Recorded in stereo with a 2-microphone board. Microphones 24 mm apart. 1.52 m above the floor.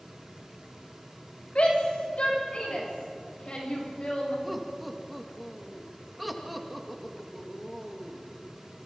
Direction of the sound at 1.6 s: 60° left (ahead or behind).